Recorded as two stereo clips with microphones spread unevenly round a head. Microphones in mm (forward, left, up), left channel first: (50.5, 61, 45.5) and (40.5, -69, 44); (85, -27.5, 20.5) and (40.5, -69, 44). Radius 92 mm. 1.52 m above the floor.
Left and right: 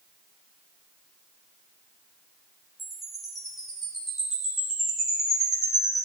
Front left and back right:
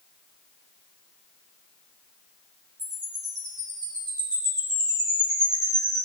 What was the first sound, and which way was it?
A chime, 175° left.